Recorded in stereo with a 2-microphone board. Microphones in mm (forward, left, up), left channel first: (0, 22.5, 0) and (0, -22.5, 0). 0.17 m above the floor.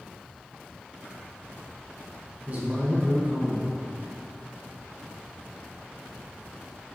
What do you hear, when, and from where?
2.5 s a man speaking: 35° right (ahead or behind), 1.5 m